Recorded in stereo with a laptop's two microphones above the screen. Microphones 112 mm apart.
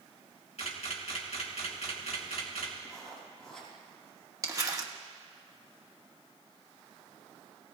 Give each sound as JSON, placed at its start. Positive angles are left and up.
{"t": 0.6, "sound": "a camera shutter", "side_deg": 70, "distance_m": 3.0}
{"t": 2.9, "sound": "writing", "side_deg": 5, "distance_m": 6.5}
{"t": 4.4, "sound": "crumpling", "side_deg": -30, "distance_m": 1.4}